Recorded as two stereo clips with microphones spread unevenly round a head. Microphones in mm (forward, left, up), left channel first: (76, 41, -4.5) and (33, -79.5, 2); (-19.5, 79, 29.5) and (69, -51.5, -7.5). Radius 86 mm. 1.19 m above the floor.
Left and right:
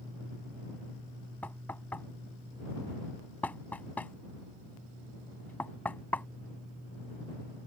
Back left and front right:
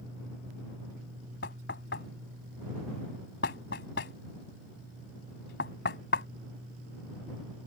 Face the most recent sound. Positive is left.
turn(degrees=155)